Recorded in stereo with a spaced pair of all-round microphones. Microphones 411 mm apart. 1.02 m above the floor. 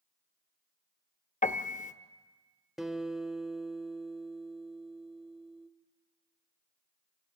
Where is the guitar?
Centre (ahead or behind), 1.0 m.